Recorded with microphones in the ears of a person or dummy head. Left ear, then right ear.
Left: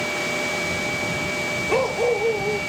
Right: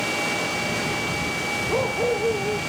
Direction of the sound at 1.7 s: 65° left (ahead or behind).